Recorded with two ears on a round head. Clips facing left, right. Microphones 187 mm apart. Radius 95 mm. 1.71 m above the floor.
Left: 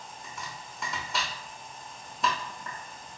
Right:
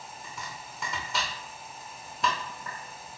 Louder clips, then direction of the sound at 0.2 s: Even; centre (ahead or behind).